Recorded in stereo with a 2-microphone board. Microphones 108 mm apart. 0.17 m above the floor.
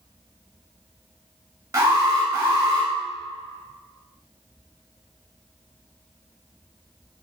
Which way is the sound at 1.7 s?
35° right (ahead or behind).